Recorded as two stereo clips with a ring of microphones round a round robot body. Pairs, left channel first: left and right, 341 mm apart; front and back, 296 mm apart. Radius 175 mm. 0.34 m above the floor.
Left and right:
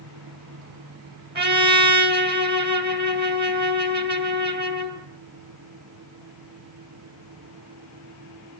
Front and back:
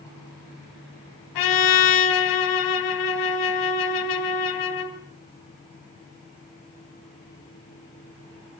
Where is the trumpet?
30° right, 2.5 m.